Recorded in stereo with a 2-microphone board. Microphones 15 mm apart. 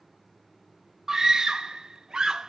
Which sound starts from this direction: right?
A scream, at 1.1 s.